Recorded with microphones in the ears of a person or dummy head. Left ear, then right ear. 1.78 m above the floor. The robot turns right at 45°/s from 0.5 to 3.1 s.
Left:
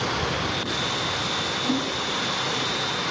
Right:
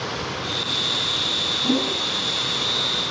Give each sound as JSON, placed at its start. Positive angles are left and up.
{"t": 1.6, "sound": "a whoosh", "side_deg": -35, "distance_m": 1.1}